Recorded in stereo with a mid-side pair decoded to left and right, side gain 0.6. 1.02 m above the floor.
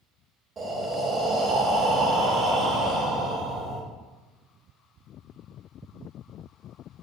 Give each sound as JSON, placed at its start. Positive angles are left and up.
{"t": 0.6, "sound": "breathing", "azimuth_deg": -40, "distance_m": 0.9}